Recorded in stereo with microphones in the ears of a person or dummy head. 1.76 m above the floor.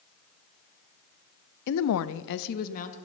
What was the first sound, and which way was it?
A woman speaking, 55° left (ahead or behind).